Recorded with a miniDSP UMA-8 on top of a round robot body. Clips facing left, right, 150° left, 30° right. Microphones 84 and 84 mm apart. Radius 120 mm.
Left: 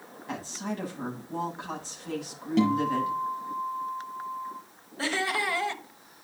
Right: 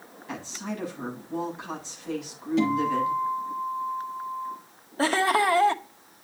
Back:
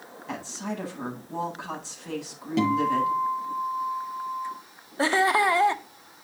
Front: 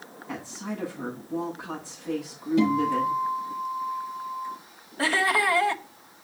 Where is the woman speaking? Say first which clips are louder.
Even, back 1 dB; 145° left, 8.5 m.